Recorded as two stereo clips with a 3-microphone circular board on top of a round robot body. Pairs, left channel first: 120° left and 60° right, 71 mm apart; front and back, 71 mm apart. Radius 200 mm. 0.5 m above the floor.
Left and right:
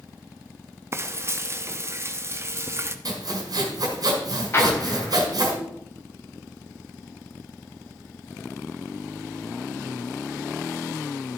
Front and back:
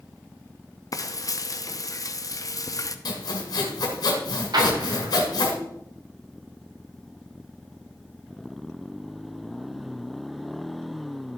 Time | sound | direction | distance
0.9 | frying | 15° right | 0.9 m
3.0 | sawing | 30° right | 1.5 m
4.5 | an explosion | 175° left | 1.6 m